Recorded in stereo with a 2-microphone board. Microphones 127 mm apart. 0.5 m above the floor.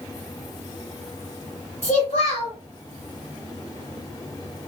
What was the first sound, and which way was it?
A child speaking, 65° left (ahead or behind).